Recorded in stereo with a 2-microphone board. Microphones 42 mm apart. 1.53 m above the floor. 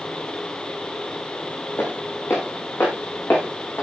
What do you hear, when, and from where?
1.8 s footsteps: 70° left (ahead or behind), 7.5 m; by 3.8 s 65° left (ahead or behind), 8.5 m